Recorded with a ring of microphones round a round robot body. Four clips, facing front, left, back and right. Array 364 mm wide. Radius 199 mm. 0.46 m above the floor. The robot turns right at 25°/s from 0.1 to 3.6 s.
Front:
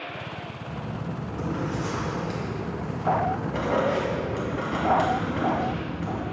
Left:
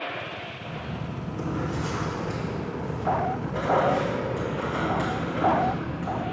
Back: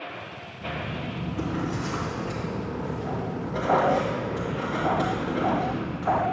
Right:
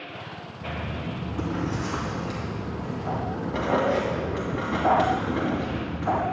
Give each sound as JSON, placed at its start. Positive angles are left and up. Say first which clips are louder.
{"t": 0.6, "sound": "writing", "louder": "right 5 dB, back 4 dB", "azimuth_deg": -130, "distance_m": 3.0}